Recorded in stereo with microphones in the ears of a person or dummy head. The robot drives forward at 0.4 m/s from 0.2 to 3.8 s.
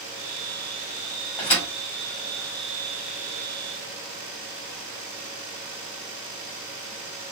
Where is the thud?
20° left (ahead or behind), 1.6 m.